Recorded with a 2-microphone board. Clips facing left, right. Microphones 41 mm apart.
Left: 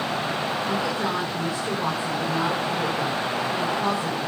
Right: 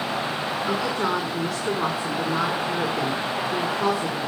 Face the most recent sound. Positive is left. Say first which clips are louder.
# right 4 dB
turn(degrees=-85)